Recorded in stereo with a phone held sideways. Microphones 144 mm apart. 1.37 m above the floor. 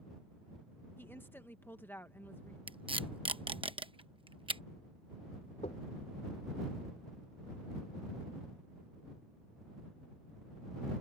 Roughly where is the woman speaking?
Centre.